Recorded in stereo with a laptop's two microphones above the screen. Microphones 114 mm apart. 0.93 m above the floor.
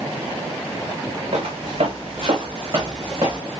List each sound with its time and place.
1.3 s footsteps: 60° right (ahead or behind), 3 m; by 3.4 s 40° right (ahead or behind), 3 m